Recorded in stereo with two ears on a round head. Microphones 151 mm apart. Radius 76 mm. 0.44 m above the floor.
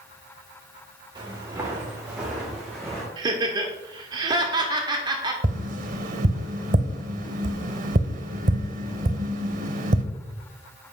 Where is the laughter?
25° right (ahead or behind), 0.9 m.